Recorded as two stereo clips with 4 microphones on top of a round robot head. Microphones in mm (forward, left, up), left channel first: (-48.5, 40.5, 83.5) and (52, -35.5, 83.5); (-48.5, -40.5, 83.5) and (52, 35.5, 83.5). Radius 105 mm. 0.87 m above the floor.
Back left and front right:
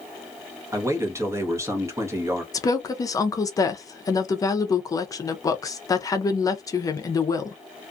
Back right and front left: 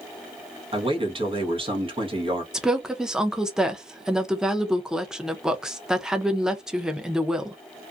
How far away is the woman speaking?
About 0.6 m.